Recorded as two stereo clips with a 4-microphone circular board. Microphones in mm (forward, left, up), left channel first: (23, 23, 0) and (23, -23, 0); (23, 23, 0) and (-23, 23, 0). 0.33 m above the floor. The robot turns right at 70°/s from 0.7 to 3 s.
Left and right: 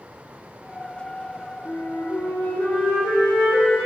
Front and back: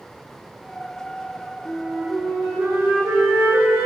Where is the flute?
65° left, 5 m; by 3.9 s 160° left, 5 m.